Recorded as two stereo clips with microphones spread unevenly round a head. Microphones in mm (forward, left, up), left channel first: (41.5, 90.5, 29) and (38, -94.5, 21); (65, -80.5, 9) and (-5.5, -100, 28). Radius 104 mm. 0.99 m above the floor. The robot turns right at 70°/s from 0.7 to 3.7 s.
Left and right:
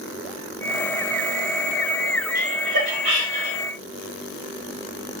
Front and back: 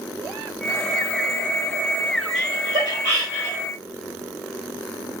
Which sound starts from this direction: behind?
Laughter, at 2.4 s.